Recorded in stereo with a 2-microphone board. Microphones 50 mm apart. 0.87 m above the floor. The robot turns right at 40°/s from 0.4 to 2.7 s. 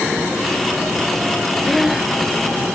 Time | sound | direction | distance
1.7 | breathing | 5° left (ahead or behind) | ?